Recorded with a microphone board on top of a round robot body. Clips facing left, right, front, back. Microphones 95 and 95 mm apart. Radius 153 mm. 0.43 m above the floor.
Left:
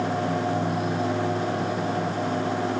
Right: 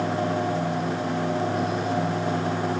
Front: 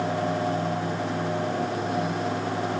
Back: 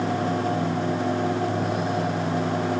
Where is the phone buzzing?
I don't hear a phone buzzing.